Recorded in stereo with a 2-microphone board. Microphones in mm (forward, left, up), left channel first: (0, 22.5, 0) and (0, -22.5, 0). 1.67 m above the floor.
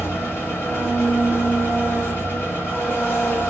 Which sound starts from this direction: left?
An engine running, at 0.0 s.